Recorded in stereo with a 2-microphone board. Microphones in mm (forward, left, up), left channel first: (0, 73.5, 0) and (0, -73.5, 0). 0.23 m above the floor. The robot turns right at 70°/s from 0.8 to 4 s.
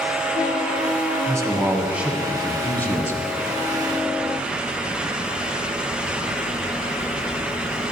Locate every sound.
1.3 s a man speaking: 20° right (ahead or behind), 1.0 m; by 3.3 s 20° left (ahead or behind), 1.0 m